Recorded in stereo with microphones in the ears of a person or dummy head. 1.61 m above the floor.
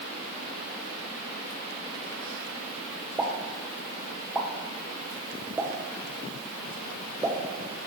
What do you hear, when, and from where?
3.2 s a pop: 10° right (ahead or behind), 0.8 m